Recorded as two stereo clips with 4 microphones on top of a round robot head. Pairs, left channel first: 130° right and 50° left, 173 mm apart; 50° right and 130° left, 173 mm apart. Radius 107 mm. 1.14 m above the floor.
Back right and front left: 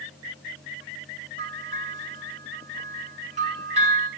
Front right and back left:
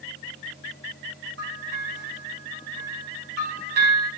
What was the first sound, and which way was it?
A bell, 105° left.